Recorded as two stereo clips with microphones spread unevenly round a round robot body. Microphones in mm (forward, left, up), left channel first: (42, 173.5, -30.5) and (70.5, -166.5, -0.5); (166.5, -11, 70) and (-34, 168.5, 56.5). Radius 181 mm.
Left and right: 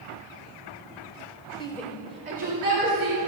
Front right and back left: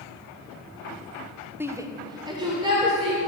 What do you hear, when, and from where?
1.6 s a shout: 75° left, 0.8 m; by 3.2 s 145° right, 2 m